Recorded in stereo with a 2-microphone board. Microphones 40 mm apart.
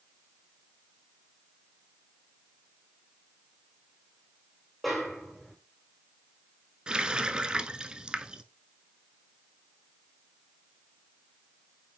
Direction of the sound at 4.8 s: 5° left (ahead or behind).